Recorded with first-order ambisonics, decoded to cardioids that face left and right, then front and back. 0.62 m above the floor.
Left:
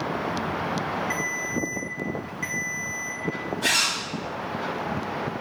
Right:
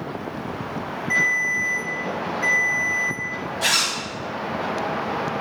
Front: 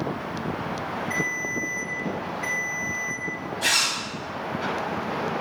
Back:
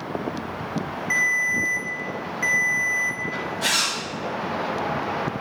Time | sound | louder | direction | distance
1.1 | a ringtone | right 8 dB, back 8 dB | straight behind | 0.9 m
3.6 | a zipper | right 2 dB, front 1 dB | 100° right | 1.3 m